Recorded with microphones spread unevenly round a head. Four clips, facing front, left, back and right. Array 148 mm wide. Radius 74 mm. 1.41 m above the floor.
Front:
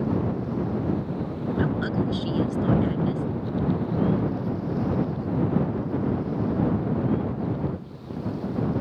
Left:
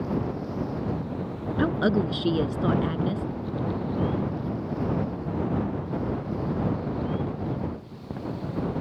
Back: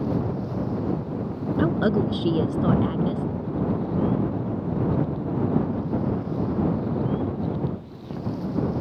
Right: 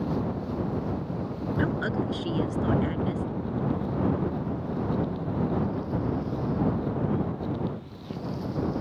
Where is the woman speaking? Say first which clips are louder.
Left 6 dB, back 5 dB; 150° left.